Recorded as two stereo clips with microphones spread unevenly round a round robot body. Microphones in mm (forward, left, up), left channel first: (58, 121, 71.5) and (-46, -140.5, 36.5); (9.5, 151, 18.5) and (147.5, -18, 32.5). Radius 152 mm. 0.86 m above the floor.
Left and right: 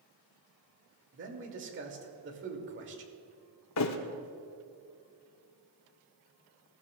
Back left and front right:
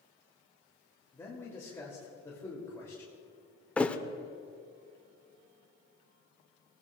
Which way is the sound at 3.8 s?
45° left.